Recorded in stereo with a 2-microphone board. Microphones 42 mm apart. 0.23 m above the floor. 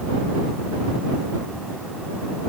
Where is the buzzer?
I don't hear a buzzer.